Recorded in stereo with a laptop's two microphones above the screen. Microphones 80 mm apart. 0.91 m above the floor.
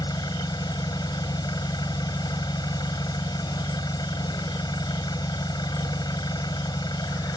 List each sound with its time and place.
0.0 s an engine running: 60° left (ahead or behind)